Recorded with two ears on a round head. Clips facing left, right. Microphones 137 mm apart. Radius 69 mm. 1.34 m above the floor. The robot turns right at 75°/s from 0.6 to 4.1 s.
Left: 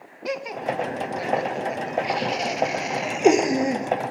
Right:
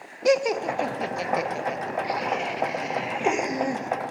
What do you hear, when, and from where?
0.2 s laughter: 55° right (ahead or behind), 0.6 m; by 3.9 s 10° left (ahead or behind), 0.6 m